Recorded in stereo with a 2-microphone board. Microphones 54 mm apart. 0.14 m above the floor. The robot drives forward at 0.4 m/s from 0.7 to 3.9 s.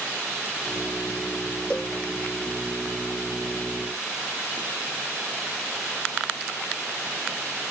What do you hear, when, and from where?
1.7 s a cowbell: 20° left (ahead or behind)